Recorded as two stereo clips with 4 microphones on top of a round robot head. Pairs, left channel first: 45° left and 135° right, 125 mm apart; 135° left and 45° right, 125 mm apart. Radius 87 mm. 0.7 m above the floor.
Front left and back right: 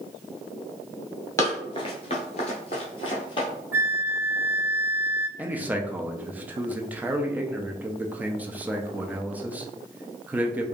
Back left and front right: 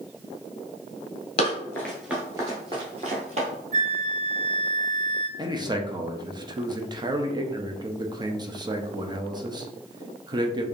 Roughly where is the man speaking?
Right.